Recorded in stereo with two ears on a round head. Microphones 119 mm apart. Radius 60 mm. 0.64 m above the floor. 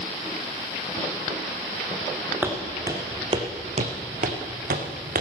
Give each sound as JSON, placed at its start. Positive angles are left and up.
{"t": 2.4, "sound": "footsteps", "side_deg": -15, "distance_m": 2.5}